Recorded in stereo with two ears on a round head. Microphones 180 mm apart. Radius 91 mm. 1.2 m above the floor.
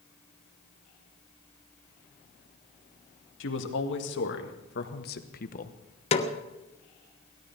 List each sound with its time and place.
3.4 s a man speaking: 70° left (ahead or behind), 2.5 m; by 5.8 s 40° left (ahead or behind), 1.0 m
6.1 s a snare drum: 30° left (ahead or behind), 1.1 m